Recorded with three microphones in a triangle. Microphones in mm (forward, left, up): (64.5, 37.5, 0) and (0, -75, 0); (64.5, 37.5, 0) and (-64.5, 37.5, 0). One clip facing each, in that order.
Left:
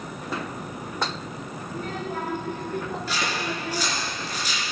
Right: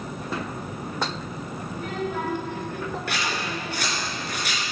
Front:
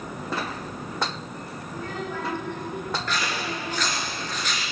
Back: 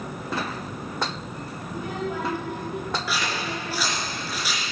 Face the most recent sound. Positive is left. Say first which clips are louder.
# left 1 dB, even
turn(degrees=-95)